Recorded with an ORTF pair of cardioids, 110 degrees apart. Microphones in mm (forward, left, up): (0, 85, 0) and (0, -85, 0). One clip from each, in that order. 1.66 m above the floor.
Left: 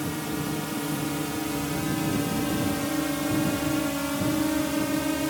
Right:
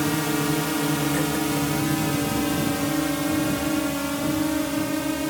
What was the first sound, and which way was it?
A drone, 50° right.